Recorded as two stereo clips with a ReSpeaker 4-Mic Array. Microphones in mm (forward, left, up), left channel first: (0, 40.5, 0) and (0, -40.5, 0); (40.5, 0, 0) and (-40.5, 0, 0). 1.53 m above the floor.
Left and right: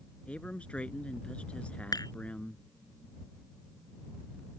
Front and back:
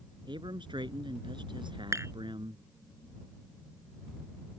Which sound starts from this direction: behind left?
Dishes clattering, at 1.9 s.